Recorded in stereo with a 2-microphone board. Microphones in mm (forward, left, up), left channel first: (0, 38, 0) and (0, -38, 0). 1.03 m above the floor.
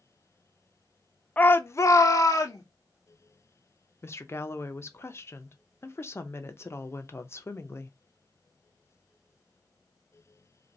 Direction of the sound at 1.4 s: 20° left (ahead or behind).